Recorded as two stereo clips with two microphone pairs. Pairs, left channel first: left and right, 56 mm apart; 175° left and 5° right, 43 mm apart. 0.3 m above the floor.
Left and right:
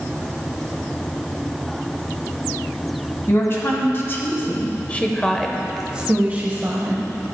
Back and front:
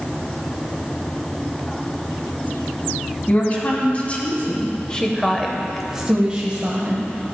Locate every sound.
3.3 s a woman speaking: 125° left, 2 m; by 7.1 s 55° right, 1.5 m